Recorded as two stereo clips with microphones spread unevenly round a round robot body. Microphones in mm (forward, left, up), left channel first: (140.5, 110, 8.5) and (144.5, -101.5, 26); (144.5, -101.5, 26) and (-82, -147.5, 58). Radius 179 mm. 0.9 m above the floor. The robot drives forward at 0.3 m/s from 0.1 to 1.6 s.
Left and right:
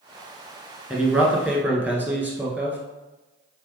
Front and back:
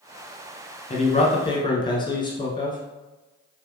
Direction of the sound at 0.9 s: 5° right.